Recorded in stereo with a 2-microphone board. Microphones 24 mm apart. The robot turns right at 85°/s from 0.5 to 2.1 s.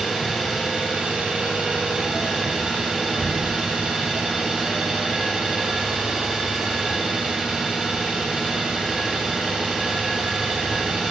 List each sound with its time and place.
0.0 s an engine running: 170° right, 1.2 m; by 11.1 s 30° right, 1.2 m